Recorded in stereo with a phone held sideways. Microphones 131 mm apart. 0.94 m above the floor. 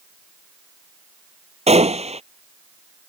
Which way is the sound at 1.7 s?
55° right (ahead or behind).